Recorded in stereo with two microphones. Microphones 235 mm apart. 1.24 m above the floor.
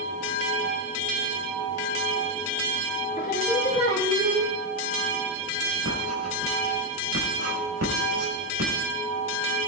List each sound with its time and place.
3.2 s singing: 35° left (ahead or behind), 1.8 m
5.8 s writing: 80° right, 5 m